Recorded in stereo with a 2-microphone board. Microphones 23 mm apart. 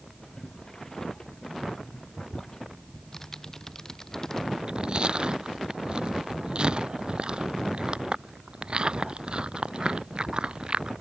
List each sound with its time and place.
0.2 s boiling: 20° left (ahead or behind)
2.9 s typing on a keyboard: 20° left (ahead or behind)
4.6 s chewing: 35° right (ahead or behind)